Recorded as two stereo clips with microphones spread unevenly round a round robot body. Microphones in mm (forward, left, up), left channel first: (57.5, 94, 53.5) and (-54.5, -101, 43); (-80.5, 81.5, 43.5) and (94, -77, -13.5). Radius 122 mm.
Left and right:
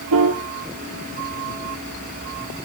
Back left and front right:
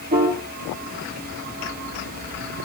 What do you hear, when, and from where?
0.1 s a piano: 95° right, 1.6 m